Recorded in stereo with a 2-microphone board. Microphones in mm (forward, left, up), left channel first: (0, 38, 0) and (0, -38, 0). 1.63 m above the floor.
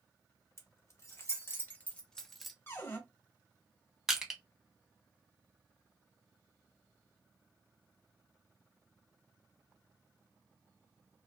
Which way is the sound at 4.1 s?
5° right (ahead or behind).